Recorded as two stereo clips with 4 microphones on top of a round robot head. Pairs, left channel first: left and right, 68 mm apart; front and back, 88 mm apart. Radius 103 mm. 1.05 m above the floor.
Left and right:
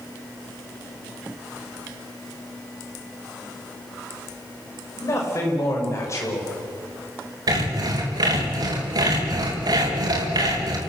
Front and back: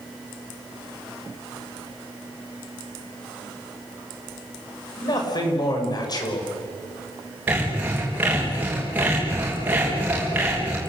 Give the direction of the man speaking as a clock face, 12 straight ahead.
11 o'clock.